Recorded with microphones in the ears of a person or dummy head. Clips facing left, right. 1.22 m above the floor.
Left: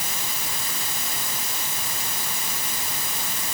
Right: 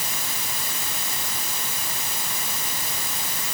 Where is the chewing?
No chewing in this recording.